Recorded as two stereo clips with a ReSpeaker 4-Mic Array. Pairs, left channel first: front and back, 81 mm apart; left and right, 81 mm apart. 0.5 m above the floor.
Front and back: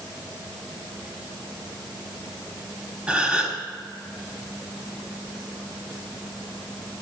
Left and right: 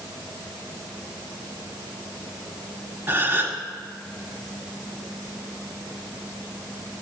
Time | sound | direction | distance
3.1 | a gasp | 115° right | 1.3 m